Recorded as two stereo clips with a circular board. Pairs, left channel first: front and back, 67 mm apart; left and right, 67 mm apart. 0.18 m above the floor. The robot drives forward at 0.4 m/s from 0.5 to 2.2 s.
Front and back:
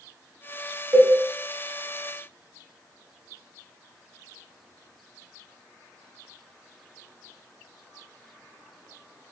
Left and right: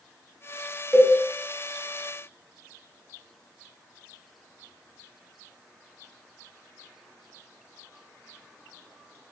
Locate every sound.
0.9 s a cowbell: 155° right, 0.6 m; by 1.1 s 160° right, 0.7 m